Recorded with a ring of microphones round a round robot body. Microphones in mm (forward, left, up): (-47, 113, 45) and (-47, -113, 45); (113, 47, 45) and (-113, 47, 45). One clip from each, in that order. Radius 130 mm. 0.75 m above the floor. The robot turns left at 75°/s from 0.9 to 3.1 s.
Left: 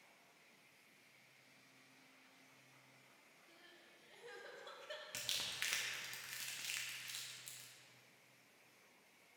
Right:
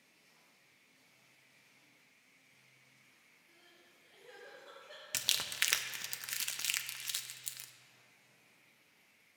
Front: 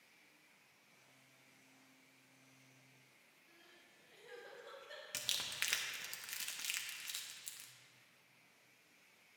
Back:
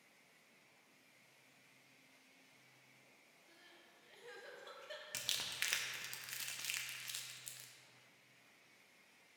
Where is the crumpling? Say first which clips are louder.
Right 9 dB, front 1 dB; 85° right, 0.6 m.